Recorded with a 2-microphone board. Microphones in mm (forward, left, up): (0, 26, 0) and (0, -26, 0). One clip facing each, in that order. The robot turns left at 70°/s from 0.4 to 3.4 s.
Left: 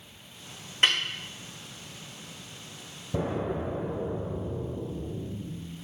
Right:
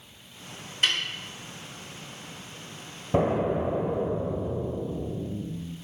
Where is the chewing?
I don't hear chewing.